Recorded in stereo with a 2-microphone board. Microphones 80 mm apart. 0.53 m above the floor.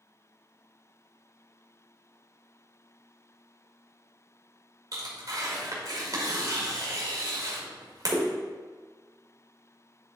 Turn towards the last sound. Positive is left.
turn(degrees=-50)  # may be behind; listen again after turning